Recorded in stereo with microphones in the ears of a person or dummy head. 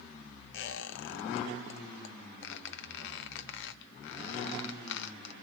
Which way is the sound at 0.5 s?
70° left (ahead or behind).